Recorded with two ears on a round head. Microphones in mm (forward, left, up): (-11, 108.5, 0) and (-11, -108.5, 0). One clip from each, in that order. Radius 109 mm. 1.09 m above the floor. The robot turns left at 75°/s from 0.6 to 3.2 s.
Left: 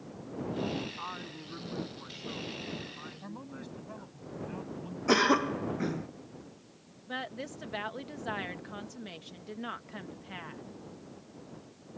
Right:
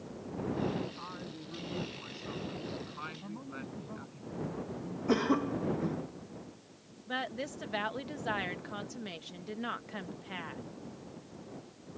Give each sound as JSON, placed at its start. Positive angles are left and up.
{"t": 1.0, "sound": "a woman speaking", "azimuth_deg": 95}
{"t": 3.2, "sound": "a man speaking", "side_deg": 85}
{"t": 5.1, "sound": "a cough", "side_deg": 65}
{"t": 7.1, "sound": "a woman speaking", "side_deg": -5}